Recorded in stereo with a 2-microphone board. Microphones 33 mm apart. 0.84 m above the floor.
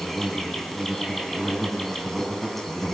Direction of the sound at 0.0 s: 5° left (ahead or behind).